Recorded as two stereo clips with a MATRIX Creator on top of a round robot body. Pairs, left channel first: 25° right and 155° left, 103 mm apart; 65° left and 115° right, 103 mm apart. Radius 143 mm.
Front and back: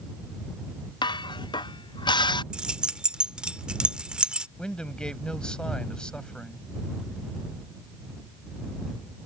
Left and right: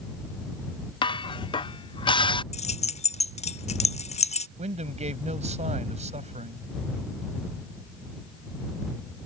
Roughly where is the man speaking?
Right.